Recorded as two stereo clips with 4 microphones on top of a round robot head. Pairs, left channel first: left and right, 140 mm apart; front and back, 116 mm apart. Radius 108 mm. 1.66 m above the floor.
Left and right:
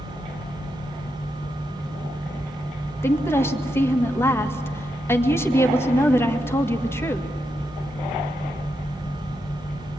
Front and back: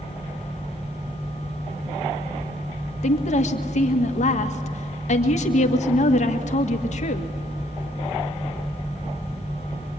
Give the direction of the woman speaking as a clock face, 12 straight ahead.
11 o'clock.